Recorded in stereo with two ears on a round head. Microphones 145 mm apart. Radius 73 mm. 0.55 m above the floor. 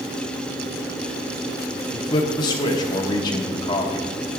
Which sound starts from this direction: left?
A man speaking, at 1.9 s.